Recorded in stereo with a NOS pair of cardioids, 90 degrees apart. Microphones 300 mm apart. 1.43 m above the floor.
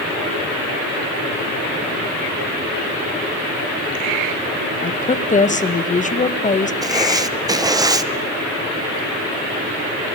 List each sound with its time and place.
4.8 s a woman speaking: 25° left, 1.5 m
6.8 s writing: 10° right, 0.9 m